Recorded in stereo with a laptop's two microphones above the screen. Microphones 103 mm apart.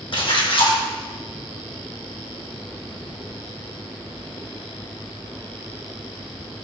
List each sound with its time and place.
0.1 s a splash: 55° left (ahead or behind), 0.9 m